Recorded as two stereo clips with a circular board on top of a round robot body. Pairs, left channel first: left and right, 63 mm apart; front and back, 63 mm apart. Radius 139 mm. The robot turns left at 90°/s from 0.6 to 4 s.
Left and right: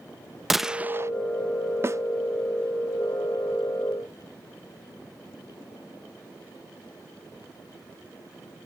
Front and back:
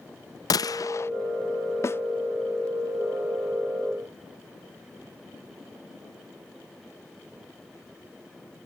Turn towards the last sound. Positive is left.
turn(degrees=125)